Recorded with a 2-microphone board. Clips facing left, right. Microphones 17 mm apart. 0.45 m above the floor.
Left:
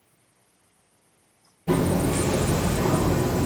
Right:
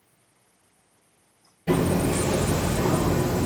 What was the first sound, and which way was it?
Hammering, 65° right (ahead or behind).